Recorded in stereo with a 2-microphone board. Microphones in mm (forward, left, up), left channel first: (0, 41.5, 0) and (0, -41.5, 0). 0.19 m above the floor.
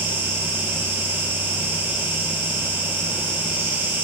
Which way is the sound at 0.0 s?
15° right (ahead or behind).